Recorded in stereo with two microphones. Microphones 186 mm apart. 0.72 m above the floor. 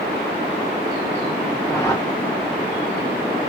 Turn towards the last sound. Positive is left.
turn(degrees=15)  # may be behind; listen again after turning